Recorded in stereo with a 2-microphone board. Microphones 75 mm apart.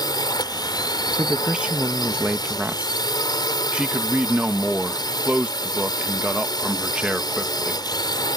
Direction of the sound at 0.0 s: 70° left (ahead or behind).